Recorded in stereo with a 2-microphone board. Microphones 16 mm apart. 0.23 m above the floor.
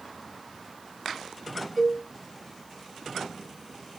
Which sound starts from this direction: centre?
A cowbell, at 1.8 s.